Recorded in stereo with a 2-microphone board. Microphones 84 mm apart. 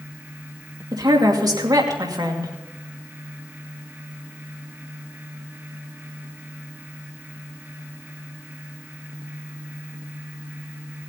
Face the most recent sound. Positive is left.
turn(degrees=-50)  # may be behind; listen again after turning